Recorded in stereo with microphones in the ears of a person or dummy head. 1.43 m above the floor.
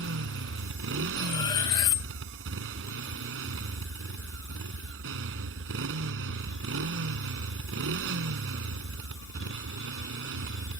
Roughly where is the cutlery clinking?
Centre.